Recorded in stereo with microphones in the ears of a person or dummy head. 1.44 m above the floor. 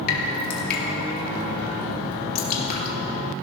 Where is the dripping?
50° left (ahead or behind), 1.8 m.